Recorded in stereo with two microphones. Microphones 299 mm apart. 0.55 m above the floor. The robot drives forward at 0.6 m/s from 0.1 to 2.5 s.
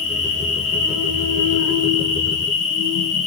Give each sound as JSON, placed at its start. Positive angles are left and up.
{"t": 0.0, "sound": "an insect", "side_deg": 85, "distance_m": 10.0}